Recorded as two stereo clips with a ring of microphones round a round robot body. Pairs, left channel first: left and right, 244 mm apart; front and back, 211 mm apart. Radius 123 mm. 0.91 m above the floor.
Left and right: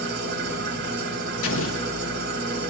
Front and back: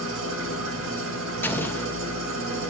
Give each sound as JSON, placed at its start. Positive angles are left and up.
{"t": 0.0, "sound": "an engine running", "azimuth_deg": -140, "distance_m": 2.0}
{"t": 1.4, "sound": "an explosion", "azimuth_deg": 80, "distance_m": 1.1}